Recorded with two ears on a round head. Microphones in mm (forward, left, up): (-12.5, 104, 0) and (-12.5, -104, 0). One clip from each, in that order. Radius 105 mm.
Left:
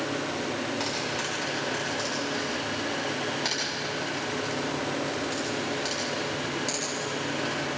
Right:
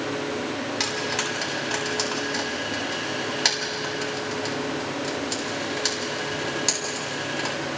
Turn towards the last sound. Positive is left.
turn(degrees=-55)  # may be behind; listen again after turning